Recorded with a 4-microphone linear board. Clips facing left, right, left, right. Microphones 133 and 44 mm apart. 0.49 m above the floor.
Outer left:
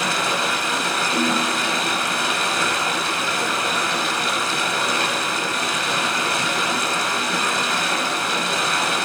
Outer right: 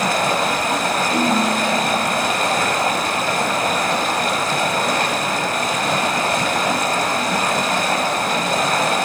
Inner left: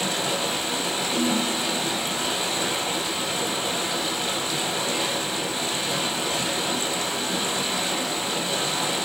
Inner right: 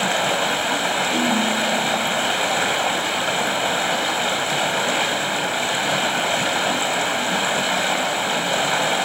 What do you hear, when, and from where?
0.0 s running water: 50° right (ahead or behind), 1.8 m
1.1 s a ringtone: 45° right (ahead or behind), 8.5 m